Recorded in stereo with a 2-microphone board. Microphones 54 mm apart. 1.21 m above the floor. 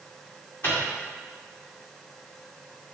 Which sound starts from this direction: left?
A microwave, at 0.6 s.